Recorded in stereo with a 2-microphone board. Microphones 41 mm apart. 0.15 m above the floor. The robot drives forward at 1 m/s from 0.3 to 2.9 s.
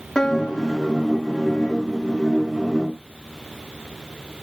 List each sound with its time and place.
0.1 s a piano: 10° left (ahead or behind), 2 m; by 1.7 s 35° left (ahead or behind), 0.8 m